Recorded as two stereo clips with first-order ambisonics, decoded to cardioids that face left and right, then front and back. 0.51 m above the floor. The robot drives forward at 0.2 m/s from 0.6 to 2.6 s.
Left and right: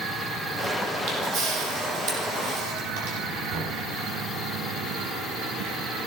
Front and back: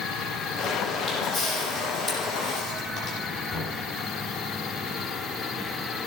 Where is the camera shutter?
95° right, 6 m; by 3.2 s 100° right, 6.5 m.